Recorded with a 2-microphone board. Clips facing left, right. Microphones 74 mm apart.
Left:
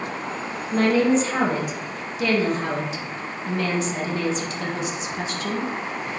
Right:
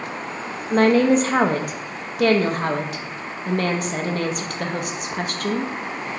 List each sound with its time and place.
0.7 s a woman speaking: 55° right (ahead or behind), 0.5 m